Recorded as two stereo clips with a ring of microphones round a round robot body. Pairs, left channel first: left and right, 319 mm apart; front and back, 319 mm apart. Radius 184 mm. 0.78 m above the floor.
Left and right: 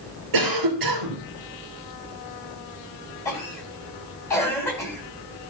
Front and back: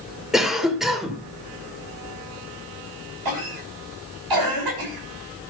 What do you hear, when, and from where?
0.3 s a cough: 90° right, 2.5 m
3.2 s a cough: 170° left, 6 m